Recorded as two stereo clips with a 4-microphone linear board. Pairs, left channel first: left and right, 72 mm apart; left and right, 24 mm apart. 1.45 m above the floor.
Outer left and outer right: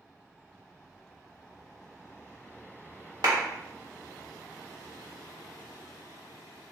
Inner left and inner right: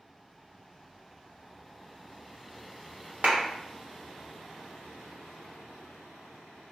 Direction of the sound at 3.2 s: 85° right.